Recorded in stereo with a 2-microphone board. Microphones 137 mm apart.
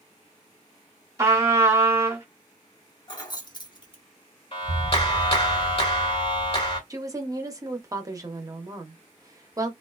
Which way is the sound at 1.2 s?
20° right (ahead or behind).